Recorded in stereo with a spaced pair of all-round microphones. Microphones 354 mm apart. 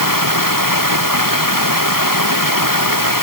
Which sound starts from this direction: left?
Running water, at 0.0 s.